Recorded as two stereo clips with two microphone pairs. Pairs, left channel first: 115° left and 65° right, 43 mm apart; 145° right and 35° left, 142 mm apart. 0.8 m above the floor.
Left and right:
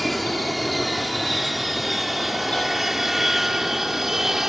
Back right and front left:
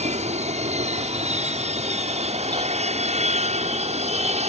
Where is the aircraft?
25° left; by 4.5 s 10° left.